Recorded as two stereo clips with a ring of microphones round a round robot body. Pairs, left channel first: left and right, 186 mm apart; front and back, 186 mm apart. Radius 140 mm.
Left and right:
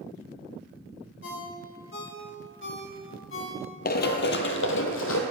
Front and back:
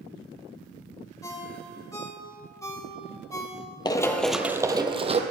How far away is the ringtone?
About 2.5 m.